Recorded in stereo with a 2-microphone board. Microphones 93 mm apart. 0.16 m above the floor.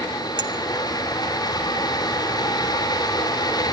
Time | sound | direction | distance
0.4 | a clink | 50° right (ahead or behind) | 0.9 m